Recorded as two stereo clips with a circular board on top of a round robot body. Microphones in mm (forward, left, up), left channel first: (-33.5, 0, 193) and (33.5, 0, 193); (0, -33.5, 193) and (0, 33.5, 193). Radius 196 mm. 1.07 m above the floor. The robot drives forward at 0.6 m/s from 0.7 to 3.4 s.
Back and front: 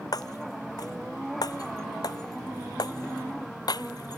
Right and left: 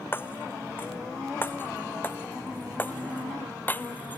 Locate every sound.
0.1 s breaking glass: 150° right; by 4.2 s 155° right